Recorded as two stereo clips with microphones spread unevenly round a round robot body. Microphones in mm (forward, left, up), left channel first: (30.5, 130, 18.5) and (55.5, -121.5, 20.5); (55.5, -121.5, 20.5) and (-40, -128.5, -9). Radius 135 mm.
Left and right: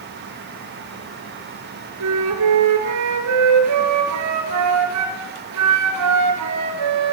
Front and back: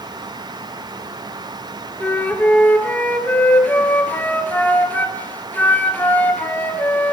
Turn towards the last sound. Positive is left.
turn(degrees=-65)